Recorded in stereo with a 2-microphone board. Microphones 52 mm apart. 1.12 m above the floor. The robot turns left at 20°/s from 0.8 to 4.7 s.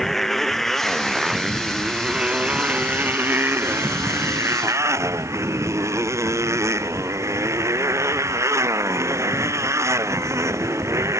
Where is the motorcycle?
5° left; by 11.2 s 75° right.